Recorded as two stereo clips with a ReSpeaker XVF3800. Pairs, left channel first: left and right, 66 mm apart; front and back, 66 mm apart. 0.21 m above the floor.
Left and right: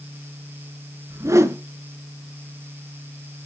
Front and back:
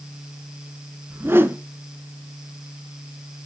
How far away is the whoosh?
About 0.6 m.